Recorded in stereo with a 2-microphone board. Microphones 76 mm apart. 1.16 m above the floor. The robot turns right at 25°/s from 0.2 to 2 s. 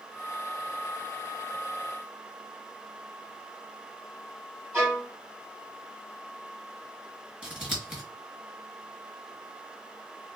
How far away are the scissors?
About 2 m.